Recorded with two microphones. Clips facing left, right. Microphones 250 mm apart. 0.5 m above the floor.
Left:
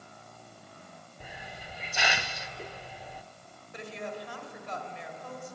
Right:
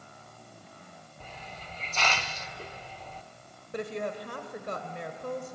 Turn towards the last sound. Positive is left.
turn(degrees=-60)  # may be behind; listen again after turning